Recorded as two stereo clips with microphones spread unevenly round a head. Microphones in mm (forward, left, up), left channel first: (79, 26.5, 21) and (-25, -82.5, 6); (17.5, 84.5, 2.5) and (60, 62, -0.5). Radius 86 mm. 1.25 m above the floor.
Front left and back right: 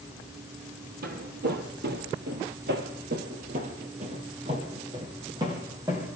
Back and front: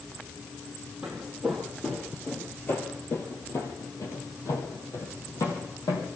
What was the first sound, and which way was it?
Footsteps, 110° right.